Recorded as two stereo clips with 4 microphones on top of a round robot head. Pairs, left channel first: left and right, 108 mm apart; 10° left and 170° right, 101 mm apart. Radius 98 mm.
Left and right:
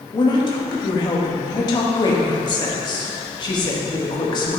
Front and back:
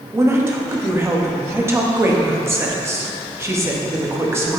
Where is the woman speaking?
130° left, 1.3 m.